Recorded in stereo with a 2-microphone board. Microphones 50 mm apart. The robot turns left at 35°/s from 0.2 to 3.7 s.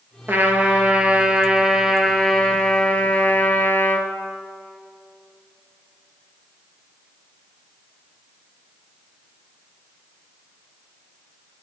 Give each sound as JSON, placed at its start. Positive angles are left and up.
{"t": 0.3, "sound": "a trumpet", "azimuth_deg": -120, "distance_m": 1.4}